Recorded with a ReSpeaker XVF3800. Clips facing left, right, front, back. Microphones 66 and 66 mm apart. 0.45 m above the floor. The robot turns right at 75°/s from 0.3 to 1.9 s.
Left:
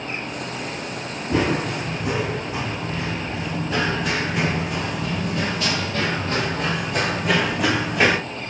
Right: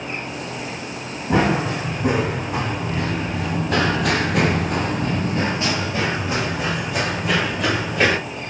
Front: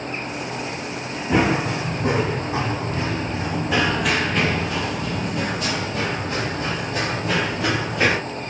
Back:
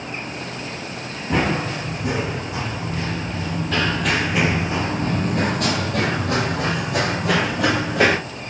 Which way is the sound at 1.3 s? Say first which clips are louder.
Right 3 dB, front 2 dB; 90° right.